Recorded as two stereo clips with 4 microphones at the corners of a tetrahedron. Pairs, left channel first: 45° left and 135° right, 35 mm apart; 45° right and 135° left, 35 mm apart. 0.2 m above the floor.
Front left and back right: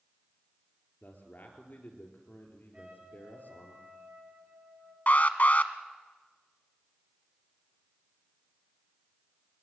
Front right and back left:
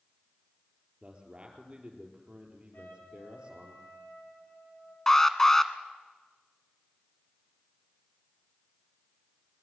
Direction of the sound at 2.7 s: 75° right.